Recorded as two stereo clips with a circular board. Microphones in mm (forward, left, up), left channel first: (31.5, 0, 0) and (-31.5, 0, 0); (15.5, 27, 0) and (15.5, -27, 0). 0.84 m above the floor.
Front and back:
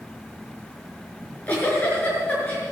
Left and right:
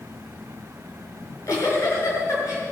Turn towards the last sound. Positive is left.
turn(degrees=65)